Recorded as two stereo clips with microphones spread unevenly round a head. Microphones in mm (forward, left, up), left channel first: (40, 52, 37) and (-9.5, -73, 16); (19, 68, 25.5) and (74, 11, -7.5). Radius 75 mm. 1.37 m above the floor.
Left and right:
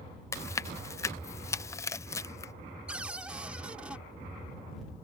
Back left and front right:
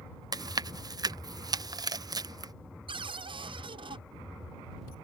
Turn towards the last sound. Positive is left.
turn(degrees=-30)